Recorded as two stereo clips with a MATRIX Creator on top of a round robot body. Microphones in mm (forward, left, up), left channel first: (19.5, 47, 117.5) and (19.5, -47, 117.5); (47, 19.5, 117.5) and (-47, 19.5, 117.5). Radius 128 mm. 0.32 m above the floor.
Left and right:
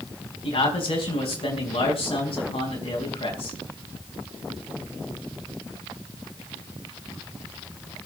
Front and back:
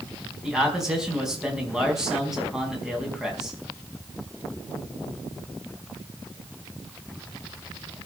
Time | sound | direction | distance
0.4 | a man speaking | 95° left | 5 m